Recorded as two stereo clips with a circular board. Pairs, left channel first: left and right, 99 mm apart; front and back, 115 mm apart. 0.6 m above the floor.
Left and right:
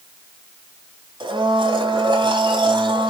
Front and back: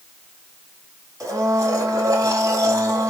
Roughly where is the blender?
Behind right.